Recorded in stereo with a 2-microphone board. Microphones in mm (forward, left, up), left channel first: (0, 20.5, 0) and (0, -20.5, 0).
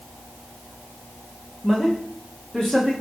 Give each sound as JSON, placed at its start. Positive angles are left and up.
{"t": 1.6, "sound": "a man speaking", "side_deg": 10, "distance_m": 9.5}